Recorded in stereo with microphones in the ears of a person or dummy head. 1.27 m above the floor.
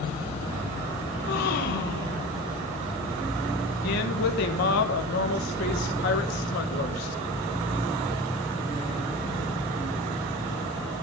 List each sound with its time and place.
1.1 s a gasp: 50° left (ahead or behind), 1.1 m
3.8 s a woman speaking: 50° left (ahead or behind), 1.2 m